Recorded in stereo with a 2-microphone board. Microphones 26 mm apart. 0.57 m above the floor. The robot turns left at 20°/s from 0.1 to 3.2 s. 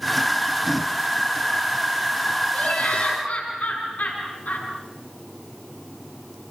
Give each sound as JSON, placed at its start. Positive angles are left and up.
{"t": 2.5, "sound": "laughter", "side_deg": 75, "distance_m": 7.0}